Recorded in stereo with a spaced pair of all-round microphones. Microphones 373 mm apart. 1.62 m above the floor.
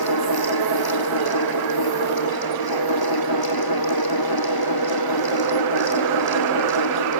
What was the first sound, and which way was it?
A fan, 90° left.